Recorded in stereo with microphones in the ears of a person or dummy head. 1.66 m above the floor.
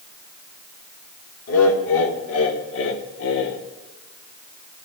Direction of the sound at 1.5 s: 75° left (ahead or behind).